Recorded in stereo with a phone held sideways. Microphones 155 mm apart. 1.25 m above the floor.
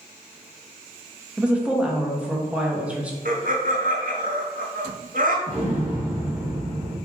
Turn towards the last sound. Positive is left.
turn(degrees=-10)  # may be behind; listen again after turning